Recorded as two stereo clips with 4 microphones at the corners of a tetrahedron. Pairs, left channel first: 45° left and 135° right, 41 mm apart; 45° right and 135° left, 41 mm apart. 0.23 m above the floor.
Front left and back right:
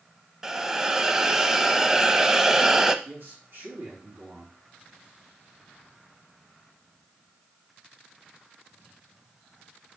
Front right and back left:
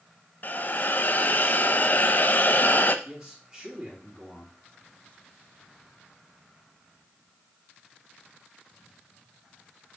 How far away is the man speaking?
About 3.5 m.